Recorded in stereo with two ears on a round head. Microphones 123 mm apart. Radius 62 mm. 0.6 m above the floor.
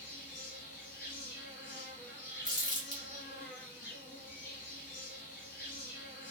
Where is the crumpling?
30° left (ahead or behind), 1.1 m.